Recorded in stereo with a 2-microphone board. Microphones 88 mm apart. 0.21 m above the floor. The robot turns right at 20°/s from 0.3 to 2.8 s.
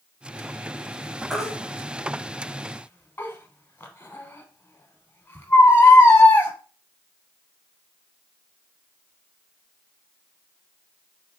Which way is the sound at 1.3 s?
5° left (ahead or behind).